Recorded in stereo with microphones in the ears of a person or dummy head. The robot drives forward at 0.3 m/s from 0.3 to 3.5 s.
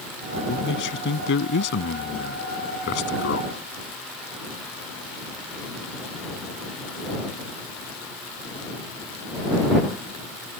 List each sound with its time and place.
0.5 s a man speaking: 65° left (ahead or behind); by 3.6 s 60° left (ahead or behind)